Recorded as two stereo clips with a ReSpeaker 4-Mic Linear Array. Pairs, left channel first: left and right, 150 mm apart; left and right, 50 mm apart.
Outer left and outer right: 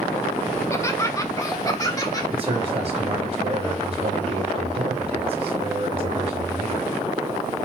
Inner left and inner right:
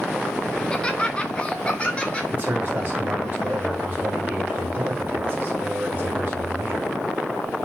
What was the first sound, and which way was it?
Laughter, 20° left (ahead or behind).